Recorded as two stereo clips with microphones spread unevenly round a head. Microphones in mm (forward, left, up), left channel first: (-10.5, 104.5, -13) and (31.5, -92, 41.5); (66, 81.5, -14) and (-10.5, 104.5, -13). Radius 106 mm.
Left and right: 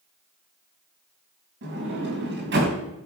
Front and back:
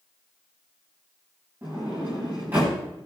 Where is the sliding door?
115° right, 4 m.